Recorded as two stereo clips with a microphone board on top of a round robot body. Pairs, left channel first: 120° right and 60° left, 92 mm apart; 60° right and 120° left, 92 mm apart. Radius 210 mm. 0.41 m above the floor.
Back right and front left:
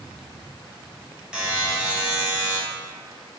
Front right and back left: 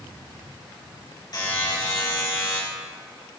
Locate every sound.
1.3 s a buzzer: 20° right, 3.5 m